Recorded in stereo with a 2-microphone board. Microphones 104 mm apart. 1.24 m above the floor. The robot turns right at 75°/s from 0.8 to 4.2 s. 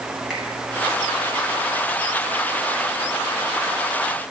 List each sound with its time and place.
0.3 s a finger snap: centre (ahead or behind), 6.5 m